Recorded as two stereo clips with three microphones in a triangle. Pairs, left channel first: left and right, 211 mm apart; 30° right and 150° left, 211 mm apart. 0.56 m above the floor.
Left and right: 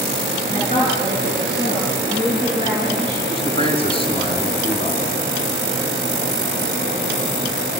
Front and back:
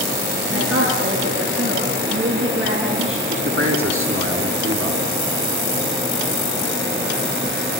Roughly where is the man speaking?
Behind left.